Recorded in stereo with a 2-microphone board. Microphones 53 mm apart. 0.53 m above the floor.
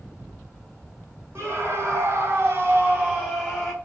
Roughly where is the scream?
Right.